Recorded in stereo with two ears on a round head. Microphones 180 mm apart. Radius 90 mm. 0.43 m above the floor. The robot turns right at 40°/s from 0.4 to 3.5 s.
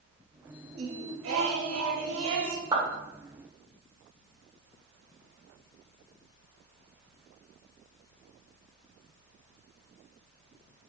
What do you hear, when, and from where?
0.8 s singing: 130° right, 0.6 m; by 2.6 s 55° right, 0.6 m
2.7 s a clap: 20° right (ahead or behind), 0.9 m